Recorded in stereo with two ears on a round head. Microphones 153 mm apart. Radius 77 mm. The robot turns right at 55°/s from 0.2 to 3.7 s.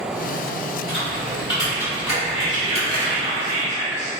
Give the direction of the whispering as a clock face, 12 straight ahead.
5 o'clock.